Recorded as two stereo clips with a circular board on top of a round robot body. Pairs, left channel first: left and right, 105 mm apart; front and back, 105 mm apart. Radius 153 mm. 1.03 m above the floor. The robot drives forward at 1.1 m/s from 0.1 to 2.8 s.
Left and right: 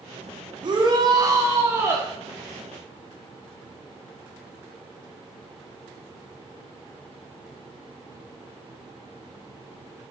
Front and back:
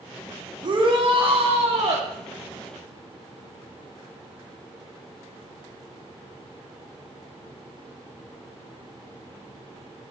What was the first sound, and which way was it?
A shout, 135° right.